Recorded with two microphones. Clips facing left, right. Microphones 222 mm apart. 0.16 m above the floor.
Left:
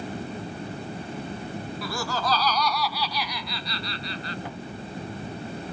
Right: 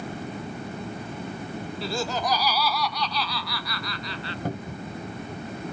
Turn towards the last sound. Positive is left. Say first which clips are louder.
# right 4 dB
turn(degrees=-40)  # may be behind; listen again after turning